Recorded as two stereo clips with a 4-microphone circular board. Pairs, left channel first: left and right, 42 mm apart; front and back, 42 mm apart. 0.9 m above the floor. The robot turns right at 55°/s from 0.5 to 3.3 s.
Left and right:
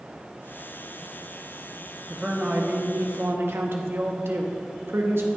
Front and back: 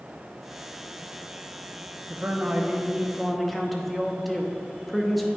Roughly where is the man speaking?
Behind right.